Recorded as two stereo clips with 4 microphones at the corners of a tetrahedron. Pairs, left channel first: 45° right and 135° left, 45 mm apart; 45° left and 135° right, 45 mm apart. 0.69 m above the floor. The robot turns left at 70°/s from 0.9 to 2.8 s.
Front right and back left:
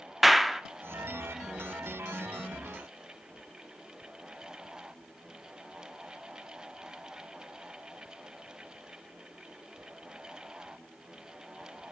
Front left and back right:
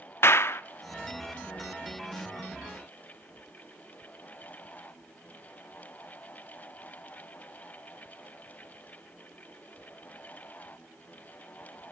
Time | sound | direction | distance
0.2 | a clap | 50° left | 1.0 m